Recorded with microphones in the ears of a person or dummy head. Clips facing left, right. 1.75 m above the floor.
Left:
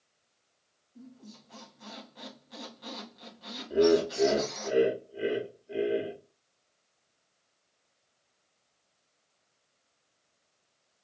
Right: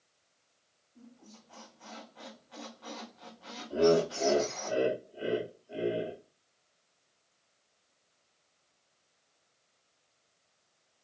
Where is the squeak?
30° left (ahead or behind), 1.3 m.